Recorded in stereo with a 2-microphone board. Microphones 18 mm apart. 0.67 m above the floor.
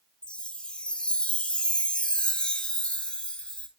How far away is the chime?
About 2 m.